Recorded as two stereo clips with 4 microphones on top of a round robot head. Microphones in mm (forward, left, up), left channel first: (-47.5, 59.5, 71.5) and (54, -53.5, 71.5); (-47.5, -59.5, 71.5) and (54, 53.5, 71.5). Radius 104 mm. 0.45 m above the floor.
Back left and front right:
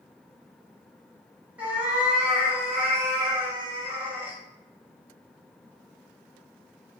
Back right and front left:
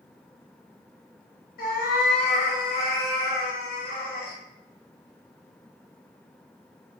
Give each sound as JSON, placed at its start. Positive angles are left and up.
{"t": 1.6, "sound": "a cat meowing", "azimuth_deg": -130, "distance_m": 1.5}